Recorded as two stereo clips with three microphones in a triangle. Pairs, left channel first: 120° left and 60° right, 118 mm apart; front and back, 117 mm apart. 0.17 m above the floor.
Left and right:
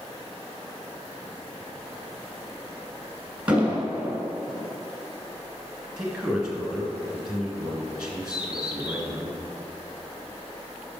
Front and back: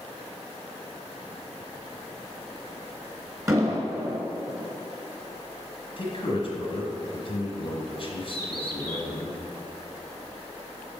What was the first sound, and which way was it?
An explosion, 135° right.